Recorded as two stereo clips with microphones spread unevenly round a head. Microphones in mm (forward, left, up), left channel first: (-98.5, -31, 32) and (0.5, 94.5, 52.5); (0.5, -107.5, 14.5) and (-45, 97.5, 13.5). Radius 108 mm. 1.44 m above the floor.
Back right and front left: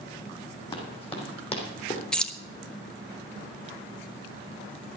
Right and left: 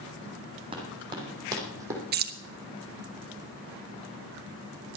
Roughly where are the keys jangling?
Behind left.